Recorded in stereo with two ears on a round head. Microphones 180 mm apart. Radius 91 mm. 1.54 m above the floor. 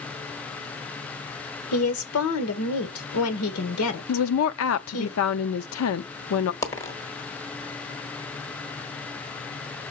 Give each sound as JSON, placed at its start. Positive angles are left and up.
{"t": 1.7, "sound": "a woman speaking", "side_deg": 85, "distance_m": 1.6}
{"t": 4.1, "sound": "a woman speaking", "side_deg": 85, "distance_m": 0.7}
{"t": 6.6, "sound": "a dropped coin", "side_deg": 15, "distance_m": 1.3}